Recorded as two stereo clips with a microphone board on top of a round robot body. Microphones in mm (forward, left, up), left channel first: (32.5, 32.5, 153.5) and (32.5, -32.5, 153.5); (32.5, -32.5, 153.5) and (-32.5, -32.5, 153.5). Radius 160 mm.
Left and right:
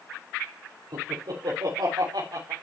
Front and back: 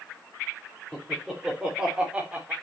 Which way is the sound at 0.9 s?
90° right.